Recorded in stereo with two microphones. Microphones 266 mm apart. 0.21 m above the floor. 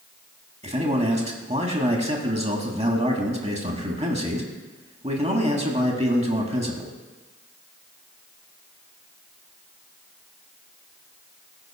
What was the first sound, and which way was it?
A man speaking, 25° right (ahead or behind).